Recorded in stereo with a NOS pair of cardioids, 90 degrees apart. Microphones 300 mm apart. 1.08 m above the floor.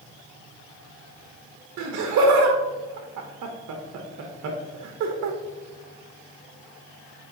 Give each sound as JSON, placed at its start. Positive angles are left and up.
{"t": 1.8, "sound": "laughter", "azimuth_deg": -65, "distance_m": 1.1}